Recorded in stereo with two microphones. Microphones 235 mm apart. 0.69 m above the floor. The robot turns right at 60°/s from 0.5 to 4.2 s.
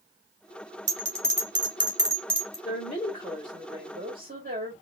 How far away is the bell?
About 2 m.